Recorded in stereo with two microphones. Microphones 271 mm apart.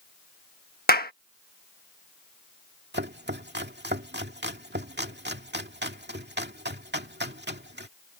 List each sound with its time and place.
0.9 s a clap: 35° left (ahead or behind)
2.9 s chopping: 40° right (ahead or behind)